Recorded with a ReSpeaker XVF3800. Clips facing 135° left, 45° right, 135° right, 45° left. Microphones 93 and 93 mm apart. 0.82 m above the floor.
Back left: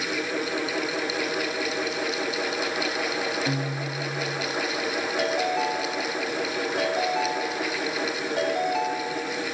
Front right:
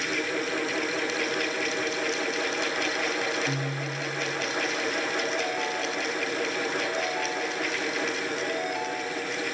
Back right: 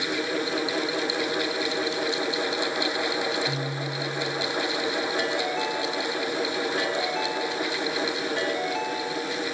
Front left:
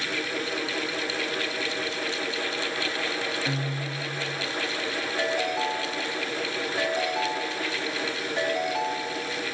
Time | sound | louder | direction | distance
3.5 | a guitar | back left 2 dB, back right 1 dB | 105° left | 4.5 m
5.2 | a ringtone | back left 4 dB, even | 120° left | 4.5 m